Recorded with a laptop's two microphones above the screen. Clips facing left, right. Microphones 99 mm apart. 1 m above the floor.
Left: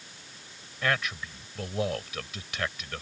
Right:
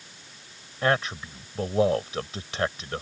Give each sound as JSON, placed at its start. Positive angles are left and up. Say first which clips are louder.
{"t": 0.8, "sound": "a man speaking", "louder": "right 5 dB", "side_deg": -35}